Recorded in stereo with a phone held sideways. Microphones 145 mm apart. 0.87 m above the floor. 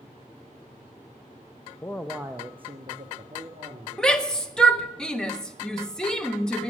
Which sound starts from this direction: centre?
A shout, at 4.0 s.